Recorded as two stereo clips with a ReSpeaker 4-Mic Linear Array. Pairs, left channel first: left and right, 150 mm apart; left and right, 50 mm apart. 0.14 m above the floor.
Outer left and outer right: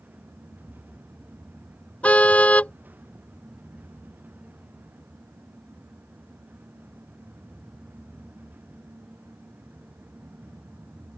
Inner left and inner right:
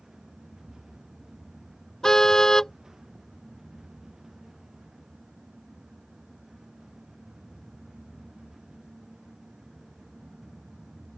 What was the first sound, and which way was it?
A car horn, 10° left (ahead or behind).